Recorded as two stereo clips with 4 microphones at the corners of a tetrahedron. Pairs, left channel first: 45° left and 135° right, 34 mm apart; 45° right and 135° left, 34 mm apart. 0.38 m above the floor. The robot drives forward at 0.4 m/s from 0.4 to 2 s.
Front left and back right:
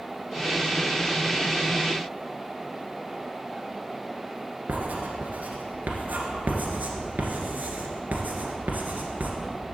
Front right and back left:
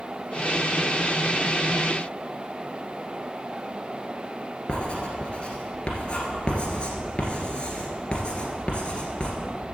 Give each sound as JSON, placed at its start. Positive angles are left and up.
{"t": 4.7, "sound": "writing", "azimuth_deg": -105, "distance_m": 1.6}